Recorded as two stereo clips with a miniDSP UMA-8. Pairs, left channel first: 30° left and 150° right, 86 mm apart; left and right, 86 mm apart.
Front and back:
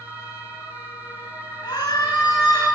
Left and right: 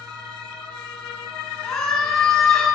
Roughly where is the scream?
Ahead.